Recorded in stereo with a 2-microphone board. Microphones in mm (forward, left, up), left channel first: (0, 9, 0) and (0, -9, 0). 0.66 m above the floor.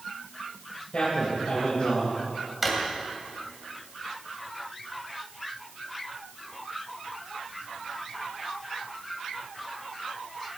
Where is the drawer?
10° right (ahead or behind), 1.9 m.